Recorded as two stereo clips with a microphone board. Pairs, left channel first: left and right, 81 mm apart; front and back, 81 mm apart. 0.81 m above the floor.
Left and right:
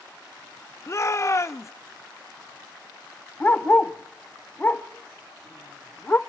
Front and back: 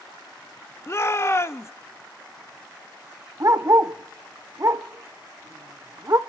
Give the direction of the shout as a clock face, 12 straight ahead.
10 o'clock.